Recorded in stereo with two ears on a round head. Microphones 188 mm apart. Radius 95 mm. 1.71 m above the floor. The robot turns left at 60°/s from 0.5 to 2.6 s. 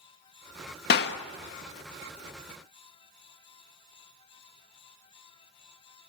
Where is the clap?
50° left (ahead or behind), 1.5 m; by 1.2 s 60° left (ahead or behind), 1.5 m.